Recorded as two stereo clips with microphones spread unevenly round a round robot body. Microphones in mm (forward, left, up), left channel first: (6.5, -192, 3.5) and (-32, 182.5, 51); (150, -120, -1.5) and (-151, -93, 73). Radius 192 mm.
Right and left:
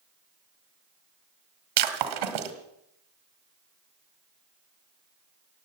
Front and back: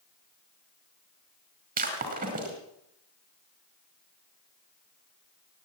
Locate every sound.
1.8 s breaking glass: 115° left, 1.9 m